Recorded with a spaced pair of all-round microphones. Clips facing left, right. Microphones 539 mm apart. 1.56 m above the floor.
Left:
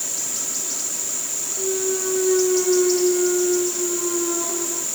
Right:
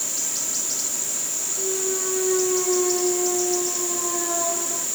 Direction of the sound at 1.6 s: 65° left (ahead or behind).